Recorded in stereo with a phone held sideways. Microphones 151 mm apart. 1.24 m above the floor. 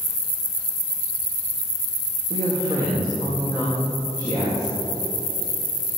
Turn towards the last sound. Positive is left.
turn(degrees=-25)  # may be behind; listen again after turning